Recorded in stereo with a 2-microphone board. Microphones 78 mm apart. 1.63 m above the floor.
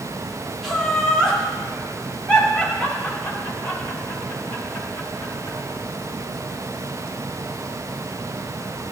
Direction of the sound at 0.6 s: 5° left (ahead or behind).